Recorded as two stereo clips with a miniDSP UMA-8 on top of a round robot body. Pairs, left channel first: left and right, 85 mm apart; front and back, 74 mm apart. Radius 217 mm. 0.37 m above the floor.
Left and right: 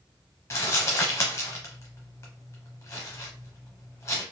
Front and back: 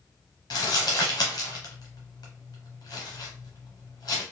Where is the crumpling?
30° left, 0.6 m.